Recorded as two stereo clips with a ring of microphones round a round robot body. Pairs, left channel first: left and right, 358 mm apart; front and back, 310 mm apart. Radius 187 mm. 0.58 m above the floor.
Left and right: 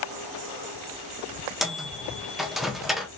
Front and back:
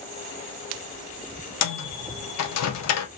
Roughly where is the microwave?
Ahead.